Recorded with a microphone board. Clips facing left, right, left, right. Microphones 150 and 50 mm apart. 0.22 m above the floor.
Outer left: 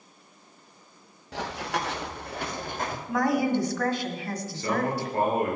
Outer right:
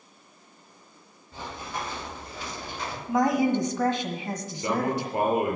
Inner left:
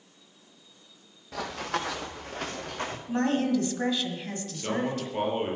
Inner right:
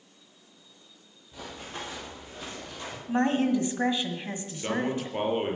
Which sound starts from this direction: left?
Running footsteps, at 1.3 s.